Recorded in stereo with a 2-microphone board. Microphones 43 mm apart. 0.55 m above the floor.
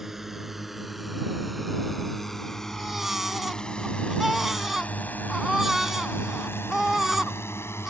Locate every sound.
0.0 s a drone: 10° right (ahead or behind); by 7.9 s 75° left (ahead or behind)
2.7 s a baby crying: 10° right (ahead or behind)